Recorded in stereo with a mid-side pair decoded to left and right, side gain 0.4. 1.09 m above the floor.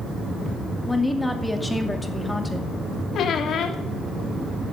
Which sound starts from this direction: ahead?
A woman speaking, at 0.9 s.